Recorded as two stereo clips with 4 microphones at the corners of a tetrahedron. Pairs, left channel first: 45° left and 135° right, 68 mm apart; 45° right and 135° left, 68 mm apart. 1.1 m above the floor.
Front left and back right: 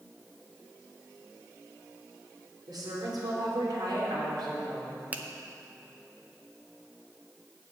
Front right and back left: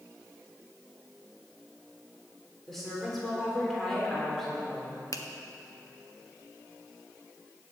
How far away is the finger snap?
About 0.8 m.